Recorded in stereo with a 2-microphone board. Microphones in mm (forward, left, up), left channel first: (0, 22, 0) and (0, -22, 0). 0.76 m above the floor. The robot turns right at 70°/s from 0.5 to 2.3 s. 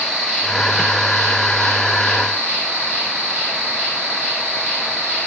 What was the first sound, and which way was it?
An insect, 165° right.